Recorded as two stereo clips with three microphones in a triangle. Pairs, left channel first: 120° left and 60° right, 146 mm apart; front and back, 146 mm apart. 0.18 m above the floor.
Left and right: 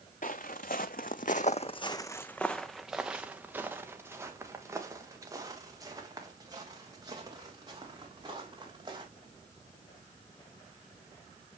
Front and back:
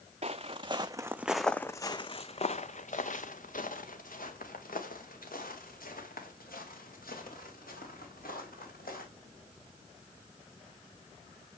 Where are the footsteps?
140° left, 0.8 m; by 9.0 s straight ahead, 4 m.